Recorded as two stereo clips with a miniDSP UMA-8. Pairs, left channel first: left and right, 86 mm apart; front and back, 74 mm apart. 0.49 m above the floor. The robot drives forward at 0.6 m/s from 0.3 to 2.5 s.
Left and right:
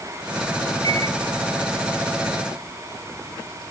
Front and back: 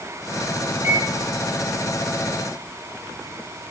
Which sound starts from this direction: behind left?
A microwave, at 0.8 s.